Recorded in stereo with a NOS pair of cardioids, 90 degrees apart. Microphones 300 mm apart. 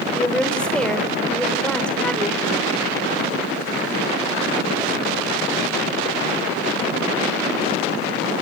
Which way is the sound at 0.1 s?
5° left.